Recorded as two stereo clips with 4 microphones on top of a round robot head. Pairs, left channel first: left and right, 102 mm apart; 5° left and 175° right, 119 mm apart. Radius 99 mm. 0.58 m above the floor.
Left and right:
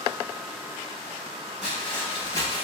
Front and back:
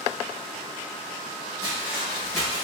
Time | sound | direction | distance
1.6 | footsteps | 170° right | 0.5 m